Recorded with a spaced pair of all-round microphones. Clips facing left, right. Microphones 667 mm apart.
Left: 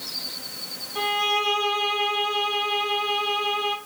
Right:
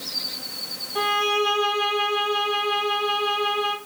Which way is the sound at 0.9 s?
70° right (ahead or behind).